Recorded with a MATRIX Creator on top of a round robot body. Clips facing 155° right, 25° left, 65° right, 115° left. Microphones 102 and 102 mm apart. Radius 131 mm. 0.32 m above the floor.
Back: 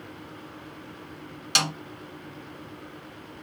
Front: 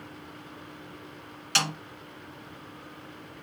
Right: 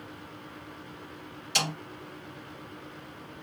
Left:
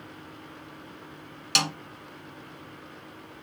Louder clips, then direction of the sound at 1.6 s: Back 1 dB, left 2 dB; 130° left.